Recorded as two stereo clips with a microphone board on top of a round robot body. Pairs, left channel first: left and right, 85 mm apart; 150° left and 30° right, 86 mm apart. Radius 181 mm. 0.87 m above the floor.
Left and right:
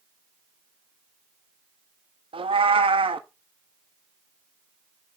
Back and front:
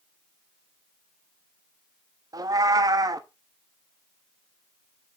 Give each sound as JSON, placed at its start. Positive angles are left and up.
{"t": 2.3, "sound": "a cat meowing", "azimuth_deg": -80, "distance_m": 1.0}